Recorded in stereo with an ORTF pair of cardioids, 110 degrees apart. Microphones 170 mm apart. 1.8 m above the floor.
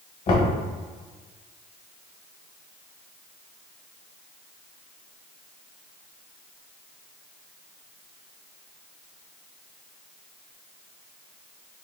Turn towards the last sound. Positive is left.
turn(degrees=55)